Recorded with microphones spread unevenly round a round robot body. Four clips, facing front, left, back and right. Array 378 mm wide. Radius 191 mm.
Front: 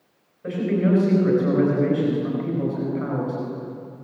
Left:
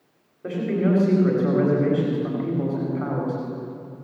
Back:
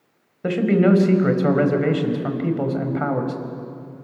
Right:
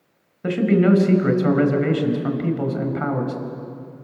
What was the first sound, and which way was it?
A man speaking, 130° right.